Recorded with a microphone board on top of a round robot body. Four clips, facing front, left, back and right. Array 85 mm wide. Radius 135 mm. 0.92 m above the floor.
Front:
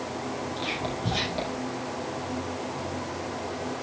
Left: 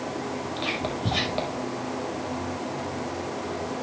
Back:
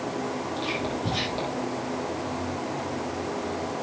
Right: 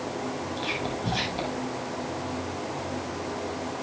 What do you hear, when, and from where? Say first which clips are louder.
0.6 s whispering: left 1 dB, back 2 dB; 90° left, 6 m